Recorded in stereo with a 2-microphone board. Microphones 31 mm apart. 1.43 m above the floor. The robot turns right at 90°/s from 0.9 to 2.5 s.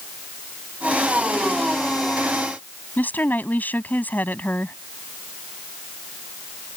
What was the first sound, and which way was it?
A woman speaking, 70° left (ahead or behind).